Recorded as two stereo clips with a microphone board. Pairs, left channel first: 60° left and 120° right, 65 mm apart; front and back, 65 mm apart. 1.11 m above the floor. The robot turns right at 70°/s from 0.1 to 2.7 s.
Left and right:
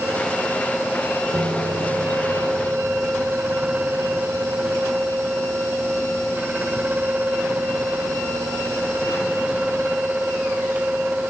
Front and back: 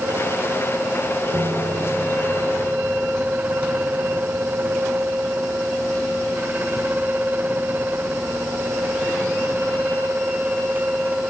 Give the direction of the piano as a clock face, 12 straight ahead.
5 o'clock.